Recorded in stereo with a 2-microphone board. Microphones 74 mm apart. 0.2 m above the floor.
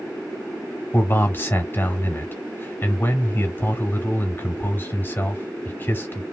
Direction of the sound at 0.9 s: 30° left (ahead or behind).